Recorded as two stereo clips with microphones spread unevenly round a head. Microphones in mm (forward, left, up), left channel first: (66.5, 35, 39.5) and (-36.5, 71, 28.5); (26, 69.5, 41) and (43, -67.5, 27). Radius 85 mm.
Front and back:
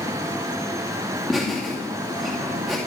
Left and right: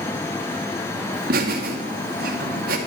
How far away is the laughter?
About 2.5 m.